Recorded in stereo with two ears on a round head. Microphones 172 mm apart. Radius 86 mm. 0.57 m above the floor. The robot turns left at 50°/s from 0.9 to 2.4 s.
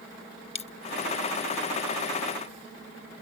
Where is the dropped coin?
30° left (ahead or behind).